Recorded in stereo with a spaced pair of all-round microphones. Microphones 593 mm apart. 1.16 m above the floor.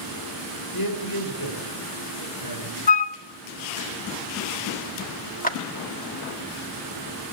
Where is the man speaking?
35° left (ahead or behind), 5.5 m.